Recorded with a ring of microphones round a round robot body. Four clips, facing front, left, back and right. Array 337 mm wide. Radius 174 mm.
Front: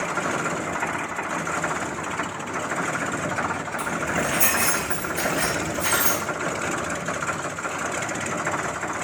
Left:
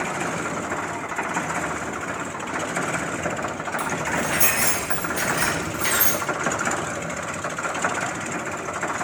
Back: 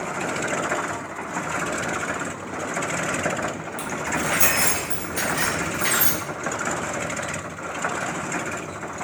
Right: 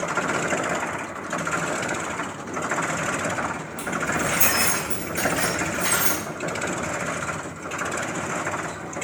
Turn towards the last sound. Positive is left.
turn(degrees=150)